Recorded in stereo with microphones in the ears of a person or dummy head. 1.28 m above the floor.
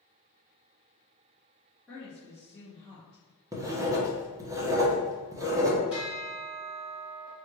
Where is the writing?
15° right (ahead or behind), 0.7 m.